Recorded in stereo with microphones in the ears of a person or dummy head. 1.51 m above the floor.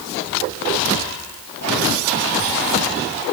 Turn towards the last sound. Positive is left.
No sound to turn to.